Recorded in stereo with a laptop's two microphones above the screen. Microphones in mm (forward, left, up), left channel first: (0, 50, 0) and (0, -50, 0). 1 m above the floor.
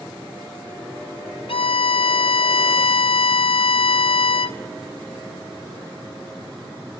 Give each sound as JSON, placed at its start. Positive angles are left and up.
{"t": 1.5, "sound": "a violin", "side_deg": 65, "distance_m": 0.6}